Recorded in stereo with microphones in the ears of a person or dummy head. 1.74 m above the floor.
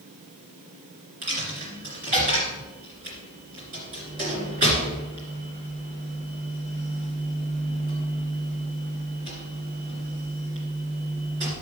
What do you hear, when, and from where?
1.2 s a dropped coin: 30° right (ahead or behind), 2.5 m